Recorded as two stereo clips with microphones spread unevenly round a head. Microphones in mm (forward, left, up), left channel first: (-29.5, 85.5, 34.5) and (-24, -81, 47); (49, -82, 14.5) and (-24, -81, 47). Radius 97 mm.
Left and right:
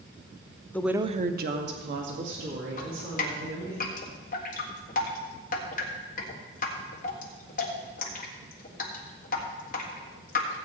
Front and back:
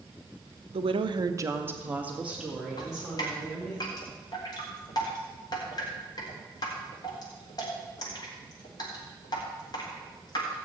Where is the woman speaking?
165° left, 0.7 m; by 3.8 s 90° right, 4.5 m.